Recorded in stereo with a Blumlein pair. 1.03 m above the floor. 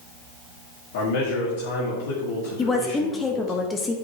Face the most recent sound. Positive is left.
turn(degrees=15)